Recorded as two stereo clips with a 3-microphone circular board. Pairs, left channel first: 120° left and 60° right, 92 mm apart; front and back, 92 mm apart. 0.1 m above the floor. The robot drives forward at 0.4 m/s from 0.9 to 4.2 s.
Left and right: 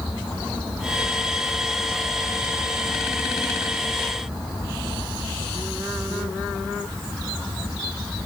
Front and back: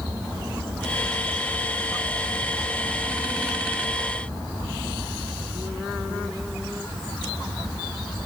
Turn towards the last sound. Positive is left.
No sound to turn to.